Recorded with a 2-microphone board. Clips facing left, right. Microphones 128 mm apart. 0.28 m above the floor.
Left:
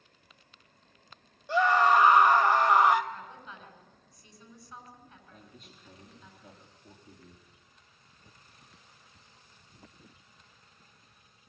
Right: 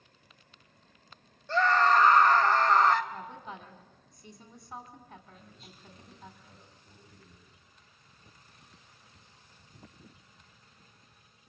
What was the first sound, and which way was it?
A scream, 15° left (ahead or behind).